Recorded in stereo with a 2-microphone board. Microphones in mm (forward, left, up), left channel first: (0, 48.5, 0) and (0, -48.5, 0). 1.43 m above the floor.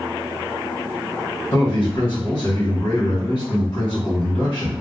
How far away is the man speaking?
About 1.9 m.